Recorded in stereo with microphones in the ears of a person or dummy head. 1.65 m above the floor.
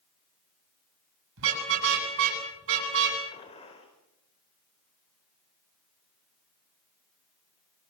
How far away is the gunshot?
About 4.5 m.